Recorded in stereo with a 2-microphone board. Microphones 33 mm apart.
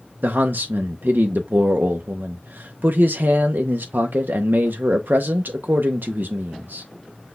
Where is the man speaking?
75° right (ahead or behind), 0.6 m.